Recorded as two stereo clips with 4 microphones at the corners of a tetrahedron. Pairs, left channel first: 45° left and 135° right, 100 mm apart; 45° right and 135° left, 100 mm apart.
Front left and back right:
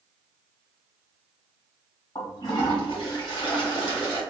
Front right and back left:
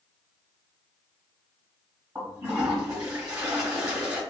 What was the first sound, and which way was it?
A toilet flushing, 85° left.